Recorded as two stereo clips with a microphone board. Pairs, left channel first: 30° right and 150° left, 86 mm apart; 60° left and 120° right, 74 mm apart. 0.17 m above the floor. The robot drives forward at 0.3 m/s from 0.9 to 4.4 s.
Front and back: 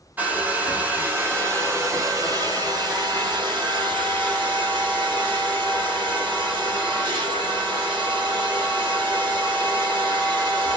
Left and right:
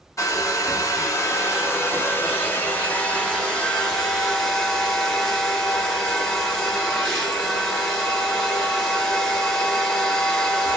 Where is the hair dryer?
85° left, 0.9 m; by 10.8 s 145° left, 1.3 m.